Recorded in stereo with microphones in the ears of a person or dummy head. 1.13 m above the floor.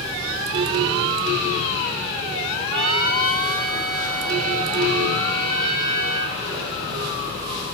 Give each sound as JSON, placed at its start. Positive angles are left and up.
{"t": 2.7, "sound": "a trumpet", "side_deg": -70, "distance_m": 4.5}